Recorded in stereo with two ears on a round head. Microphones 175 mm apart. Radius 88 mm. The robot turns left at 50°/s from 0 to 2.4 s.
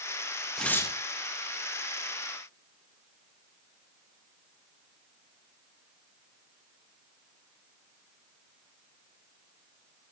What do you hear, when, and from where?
0.6 s tearing paper: centre (ahead or behind), 1.5 m; by 1.0 s 20° left (ahead or behind), 1.5 m